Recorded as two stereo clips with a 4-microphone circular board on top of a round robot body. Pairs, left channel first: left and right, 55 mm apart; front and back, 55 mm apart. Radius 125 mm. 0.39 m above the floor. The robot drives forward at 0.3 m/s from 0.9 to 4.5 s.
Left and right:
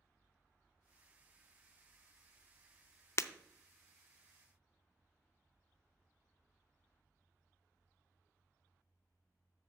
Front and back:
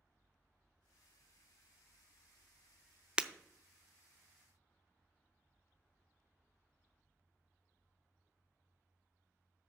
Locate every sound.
3.2 s breaking glass: 110° left, 0.6 m; by 3.3 s 115° left, 0.6 m